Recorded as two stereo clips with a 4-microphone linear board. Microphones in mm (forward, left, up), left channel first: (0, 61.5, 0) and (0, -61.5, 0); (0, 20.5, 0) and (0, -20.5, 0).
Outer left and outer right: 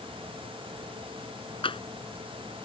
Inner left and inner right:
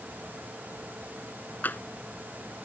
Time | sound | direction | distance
1.6 | tapping | 45° left (ahead or behind) | ?